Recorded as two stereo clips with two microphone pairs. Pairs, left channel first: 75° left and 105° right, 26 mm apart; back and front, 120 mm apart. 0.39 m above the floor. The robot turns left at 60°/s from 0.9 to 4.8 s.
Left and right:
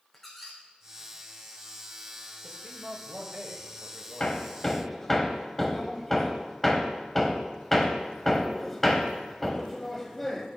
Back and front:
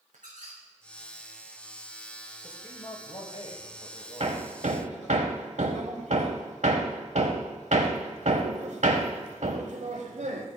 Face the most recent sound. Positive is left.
turn(degrees=-5)